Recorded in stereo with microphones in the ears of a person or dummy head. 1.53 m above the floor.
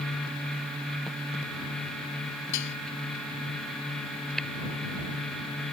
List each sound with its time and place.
2.5 s dishes clattering: 70° left (ahead or behind)
4.4 s tapping: 5° left (ahead or behind)